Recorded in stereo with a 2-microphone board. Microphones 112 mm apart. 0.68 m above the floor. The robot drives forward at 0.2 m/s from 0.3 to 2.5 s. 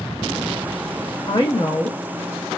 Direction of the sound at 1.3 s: 40° left (ahead or behind).